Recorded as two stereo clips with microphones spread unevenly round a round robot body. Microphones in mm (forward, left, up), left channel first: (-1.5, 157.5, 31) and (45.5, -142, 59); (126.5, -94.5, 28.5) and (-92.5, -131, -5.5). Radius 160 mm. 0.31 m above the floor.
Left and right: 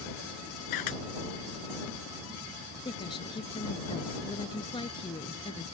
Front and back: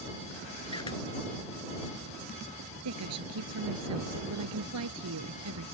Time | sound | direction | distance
0.7 | a camera shutter | 85° left | ?
2.9 | a woman speaking | 175° left | ?